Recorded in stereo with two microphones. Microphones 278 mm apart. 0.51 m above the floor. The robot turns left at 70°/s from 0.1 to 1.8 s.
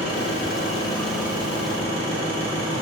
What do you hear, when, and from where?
0.0 s an engine running: 70° left, 2 m; by 2.8 s 50° right, 2 m